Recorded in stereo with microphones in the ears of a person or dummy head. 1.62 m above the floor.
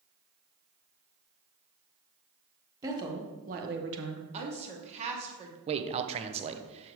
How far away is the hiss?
I don't hear a hiss.